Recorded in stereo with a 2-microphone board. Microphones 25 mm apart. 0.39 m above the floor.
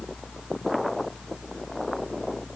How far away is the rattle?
I don't hear a rattle.